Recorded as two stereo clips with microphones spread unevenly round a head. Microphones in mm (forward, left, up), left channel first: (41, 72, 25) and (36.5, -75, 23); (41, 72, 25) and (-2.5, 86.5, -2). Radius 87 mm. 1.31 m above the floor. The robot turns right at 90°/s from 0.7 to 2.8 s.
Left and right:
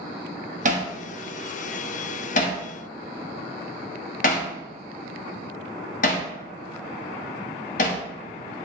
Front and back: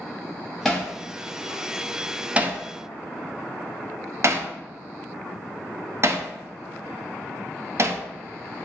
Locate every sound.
0.7 s hammering: 70° right, 0.9 m; by 8.0 s 115° left, 0.9 m